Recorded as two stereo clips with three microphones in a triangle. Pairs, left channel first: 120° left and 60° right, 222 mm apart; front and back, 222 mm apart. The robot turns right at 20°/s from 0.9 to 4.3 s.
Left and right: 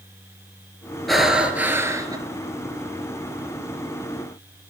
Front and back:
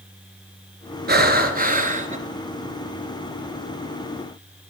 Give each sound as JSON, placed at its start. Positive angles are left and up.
{"t": 1.1, "sound": "breathing", "azimuth_deg": -150, "distance_m": 1.1}